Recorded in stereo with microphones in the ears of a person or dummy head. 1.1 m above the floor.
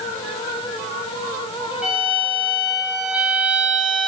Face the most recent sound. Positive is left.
turn(degrees=0)  # may be behind; listen again after turning